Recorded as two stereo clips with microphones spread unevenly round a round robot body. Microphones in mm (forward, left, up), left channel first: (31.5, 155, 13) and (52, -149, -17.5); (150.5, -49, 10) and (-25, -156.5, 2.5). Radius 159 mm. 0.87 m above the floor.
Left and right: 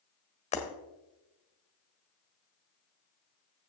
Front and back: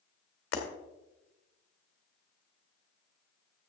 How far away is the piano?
I don't hear a piano.